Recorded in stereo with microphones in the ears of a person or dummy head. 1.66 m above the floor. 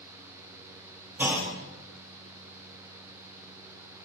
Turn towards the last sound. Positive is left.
turn(degrees=-15)  # may be behind; listen again after turning